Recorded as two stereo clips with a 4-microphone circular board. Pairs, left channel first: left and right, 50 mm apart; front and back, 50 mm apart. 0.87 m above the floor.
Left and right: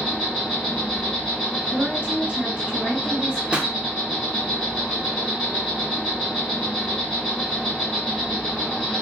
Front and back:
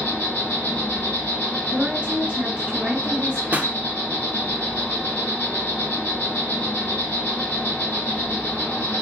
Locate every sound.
0.0 s an insect: straight ahead, 2.5 m
1.7 s a woman speaking: 135° right, 1.0 m
3.5 s a pop: 150° right, 0.5 m